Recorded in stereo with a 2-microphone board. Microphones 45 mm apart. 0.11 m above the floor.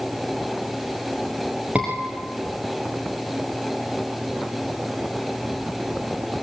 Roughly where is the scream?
Right.